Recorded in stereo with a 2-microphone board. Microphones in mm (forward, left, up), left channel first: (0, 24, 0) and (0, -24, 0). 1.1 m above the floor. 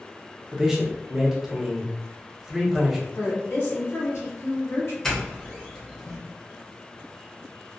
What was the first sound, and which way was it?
A man speaking, 10° right (ahead or behind).